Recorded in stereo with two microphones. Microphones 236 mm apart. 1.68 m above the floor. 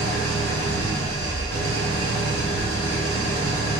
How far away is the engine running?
About 1.7 m.